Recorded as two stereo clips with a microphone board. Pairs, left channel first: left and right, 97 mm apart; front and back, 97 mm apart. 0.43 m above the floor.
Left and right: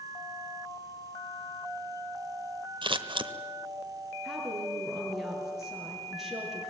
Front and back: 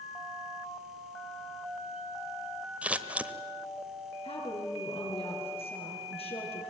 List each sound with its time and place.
2.8 s scissors: 105° right, 1.0 m
4.2 s a woman speaking: straight ahead, 7 m